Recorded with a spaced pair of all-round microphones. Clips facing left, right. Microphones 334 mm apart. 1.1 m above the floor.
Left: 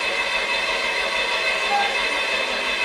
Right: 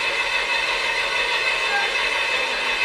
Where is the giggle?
No giggle in this recording.